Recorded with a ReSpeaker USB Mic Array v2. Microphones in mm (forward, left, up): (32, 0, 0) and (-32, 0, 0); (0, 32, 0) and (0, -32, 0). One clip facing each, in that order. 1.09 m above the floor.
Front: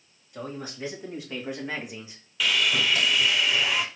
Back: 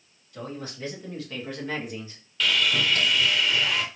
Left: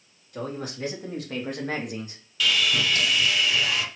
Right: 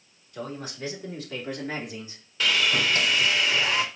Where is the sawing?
75° right, 0.7 m.